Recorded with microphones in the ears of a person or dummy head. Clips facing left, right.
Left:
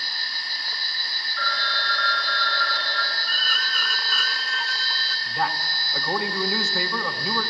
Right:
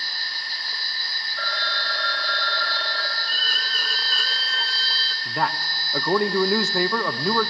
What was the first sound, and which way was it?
A phone ringing, 15° right (ahead or behind).